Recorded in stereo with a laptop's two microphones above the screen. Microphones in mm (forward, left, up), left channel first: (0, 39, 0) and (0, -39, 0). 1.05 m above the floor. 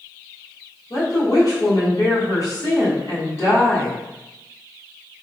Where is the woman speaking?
40° left (ahead or behind), 1.4 m.